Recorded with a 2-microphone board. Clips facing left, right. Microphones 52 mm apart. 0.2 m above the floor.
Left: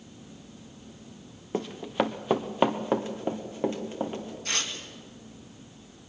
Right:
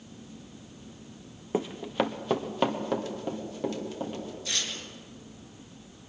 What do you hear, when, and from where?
1.5 s running footsteps: 5° right (ahead or behind), 0.9 m; by 4.3 s 30° left (ahead or behind), 3.5 m
4.5 s tearing paper: 50° left (ahead or behind), 2.5 m